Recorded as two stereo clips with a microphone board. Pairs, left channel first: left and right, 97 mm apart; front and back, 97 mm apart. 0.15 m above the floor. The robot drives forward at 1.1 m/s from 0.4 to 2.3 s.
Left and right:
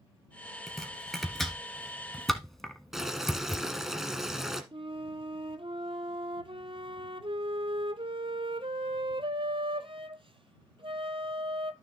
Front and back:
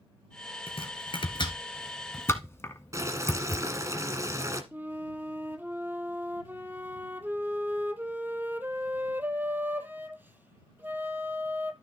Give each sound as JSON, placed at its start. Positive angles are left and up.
{"t": 0.7, "sound": "chopping", "azimuth_deg": 0, "distance_m": 2.5}
{"t": 2.9, "sound": "boiling", "azimuth_deg": -175, "distance_m": 1.6}
{"t": 4.7, "sound": "a flute", "azimuth_deg": -110, "distance_m": 0.8}